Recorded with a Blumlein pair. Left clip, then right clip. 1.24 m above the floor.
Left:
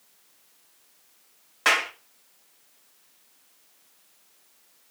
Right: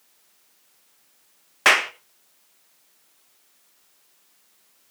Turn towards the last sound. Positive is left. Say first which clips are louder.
# right 5 dB
turn(degrees=-70)